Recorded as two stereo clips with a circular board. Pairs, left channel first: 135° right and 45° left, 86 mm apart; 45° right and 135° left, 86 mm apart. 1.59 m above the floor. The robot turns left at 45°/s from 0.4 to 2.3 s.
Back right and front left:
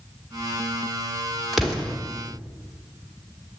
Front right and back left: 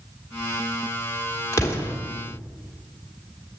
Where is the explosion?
40° right, 1.2 m; by 1.9 s 60° right, 1.2 m.